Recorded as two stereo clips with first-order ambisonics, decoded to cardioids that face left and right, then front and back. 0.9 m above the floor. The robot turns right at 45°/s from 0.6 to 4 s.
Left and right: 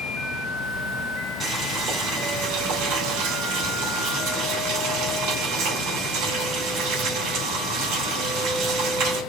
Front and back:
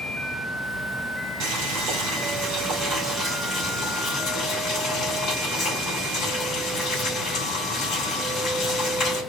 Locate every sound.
1.4 s boiling: 175° right, 3 m; by 9.2 s 60° right, 3 m